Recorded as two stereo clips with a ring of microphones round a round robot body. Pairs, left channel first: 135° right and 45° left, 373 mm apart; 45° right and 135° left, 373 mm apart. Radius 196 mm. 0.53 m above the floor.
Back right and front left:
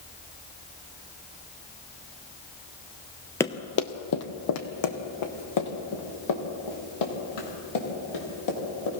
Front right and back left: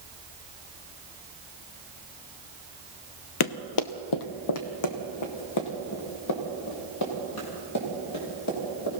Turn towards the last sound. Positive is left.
turn(degrees=-95)